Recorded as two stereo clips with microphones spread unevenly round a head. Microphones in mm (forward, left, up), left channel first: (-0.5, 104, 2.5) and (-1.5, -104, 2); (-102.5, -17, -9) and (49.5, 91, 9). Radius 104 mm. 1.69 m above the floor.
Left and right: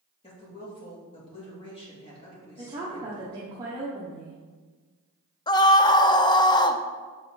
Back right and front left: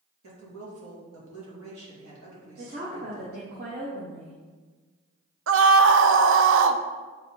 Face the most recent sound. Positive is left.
turn(degrees=20)